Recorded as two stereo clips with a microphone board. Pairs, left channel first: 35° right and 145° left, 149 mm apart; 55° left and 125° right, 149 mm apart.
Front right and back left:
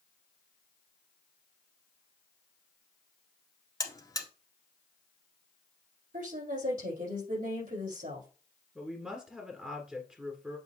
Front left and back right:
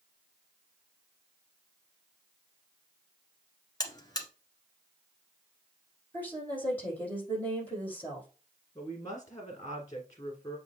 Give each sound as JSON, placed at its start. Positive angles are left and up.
{"t": 3.8, "sound": "a buzzer", "azimuth_deg": 10, "distance_m": 1.4}
{"t": 6.1, "sound": "a woman speaking", "azimuth_deg": 135, "distance_m": 4.5}
{"t": 8.8, "sound": "a woman speaking", "azimuth_deg": 70, "distance_m": 1.7}